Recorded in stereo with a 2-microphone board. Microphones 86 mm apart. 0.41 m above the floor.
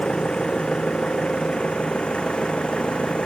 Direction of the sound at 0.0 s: 10° left (ahead or behind).